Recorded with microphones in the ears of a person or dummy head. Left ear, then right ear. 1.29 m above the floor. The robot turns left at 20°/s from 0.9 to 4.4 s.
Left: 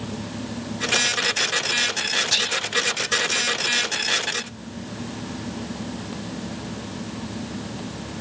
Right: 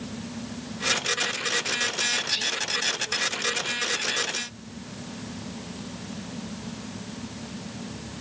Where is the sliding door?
No sliding door in this recording.